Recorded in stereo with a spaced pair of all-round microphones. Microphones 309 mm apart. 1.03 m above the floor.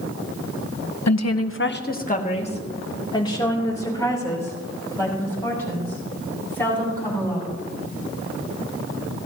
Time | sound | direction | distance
1.1 | a woman speaking | 65° left (ahead or behind) | 0.7 m